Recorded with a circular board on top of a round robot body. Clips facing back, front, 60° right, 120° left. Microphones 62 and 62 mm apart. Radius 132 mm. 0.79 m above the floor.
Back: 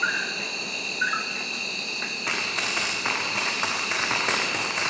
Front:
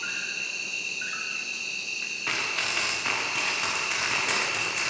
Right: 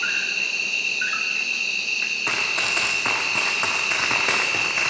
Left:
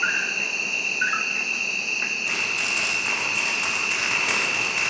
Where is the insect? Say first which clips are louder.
Back 8 dB, left 1 dB; straight behind, 1.0 m.